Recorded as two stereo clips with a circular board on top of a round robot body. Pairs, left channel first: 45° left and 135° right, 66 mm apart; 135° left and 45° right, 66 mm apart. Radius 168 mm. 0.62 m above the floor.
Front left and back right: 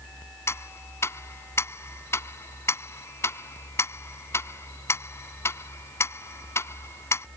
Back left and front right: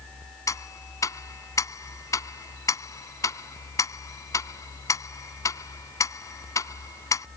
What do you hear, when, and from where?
0.5 s ticking: 95° left